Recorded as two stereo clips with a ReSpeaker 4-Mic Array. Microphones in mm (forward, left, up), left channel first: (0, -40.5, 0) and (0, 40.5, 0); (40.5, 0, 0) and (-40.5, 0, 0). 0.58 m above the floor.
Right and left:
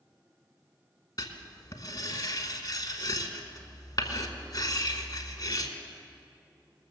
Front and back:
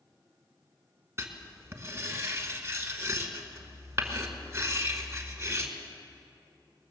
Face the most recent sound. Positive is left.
turn(degrees=-130)